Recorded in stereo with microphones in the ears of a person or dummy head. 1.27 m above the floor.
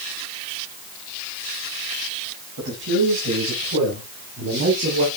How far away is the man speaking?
About 5.5 m.